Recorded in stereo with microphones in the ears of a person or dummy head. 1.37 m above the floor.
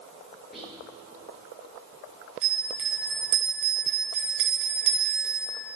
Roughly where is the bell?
Right.